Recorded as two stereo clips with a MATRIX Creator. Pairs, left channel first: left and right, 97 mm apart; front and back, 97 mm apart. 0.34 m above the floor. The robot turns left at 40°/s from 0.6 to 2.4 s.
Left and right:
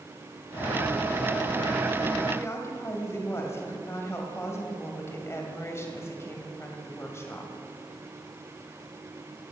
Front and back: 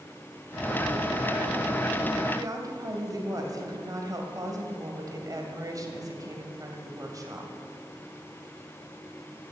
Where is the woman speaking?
145° left, 2.0 m.